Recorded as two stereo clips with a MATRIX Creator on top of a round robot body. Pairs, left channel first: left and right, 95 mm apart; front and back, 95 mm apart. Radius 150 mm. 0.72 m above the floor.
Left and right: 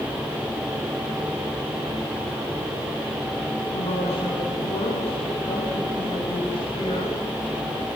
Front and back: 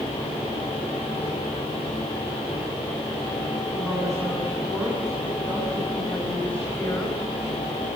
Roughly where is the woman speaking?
Left.